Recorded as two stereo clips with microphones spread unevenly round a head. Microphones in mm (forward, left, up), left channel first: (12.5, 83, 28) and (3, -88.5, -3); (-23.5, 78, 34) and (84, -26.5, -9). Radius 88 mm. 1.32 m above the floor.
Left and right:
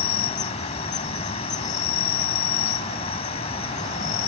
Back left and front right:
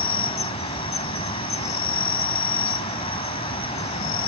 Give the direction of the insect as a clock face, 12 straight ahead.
8 o'clock.